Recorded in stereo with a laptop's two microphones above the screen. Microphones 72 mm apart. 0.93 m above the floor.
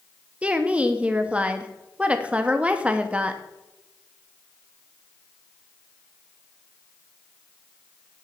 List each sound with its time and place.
0.4 s a woman speaking: 20° right (ahead or behind), 1.0 m